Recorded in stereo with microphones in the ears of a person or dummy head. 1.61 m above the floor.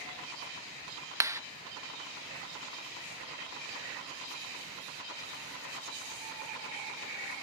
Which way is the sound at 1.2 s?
15° right (ahead or behind).